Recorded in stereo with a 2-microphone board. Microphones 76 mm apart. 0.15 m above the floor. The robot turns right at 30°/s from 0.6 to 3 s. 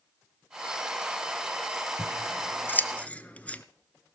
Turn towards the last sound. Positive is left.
turn(degrees=20)  # may be behind; listen again after turning